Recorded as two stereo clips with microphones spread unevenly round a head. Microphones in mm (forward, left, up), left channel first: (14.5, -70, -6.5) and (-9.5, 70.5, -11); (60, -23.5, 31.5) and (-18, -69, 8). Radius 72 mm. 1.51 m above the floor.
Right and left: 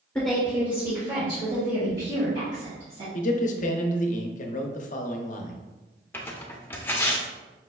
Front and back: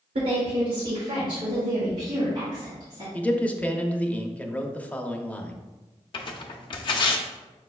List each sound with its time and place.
0.1 s a woman speaking: 165° right, 0.8 m; by 3.0 s 140° left, 2.5 m
3.1 s a man speaking: 45° right, 0.7 m
6.1 s tearing paper: 5° right, 0.7 m